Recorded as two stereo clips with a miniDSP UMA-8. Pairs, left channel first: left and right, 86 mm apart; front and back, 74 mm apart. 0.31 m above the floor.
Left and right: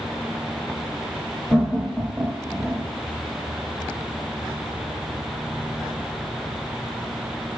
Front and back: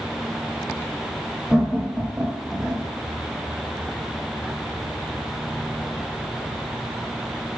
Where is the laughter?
110° left, 1.2 m; by 2.9 s 155° right, 1.7 m.